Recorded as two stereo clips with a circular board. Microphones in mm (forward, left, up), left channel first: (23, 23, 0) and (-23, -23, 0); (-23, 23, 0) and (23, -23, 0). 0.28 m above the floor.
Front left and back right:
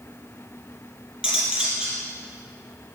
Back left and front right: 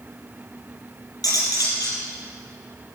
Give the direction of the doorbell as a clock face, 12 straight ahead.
I don't hear a doorbell.